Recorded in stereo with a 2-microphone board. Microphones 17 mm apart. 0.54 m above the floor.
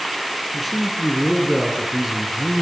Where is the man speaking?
5° right (ahead or behind), 6 m; by 2.6 s 25° right (ahead or behind), 5.5 m.